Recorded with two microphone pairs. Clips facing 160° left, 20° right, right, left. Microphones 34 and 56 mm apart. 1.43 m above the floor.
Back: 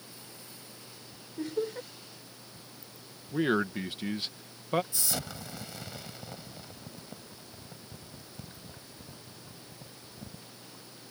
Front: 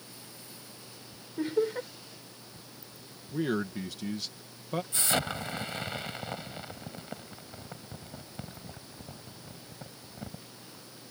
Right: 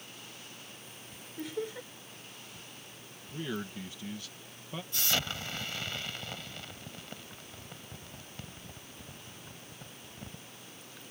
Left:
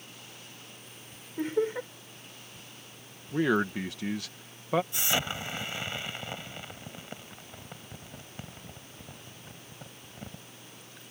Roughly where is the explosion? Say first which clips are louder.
Front 6 dB, left 3 dB; ahead.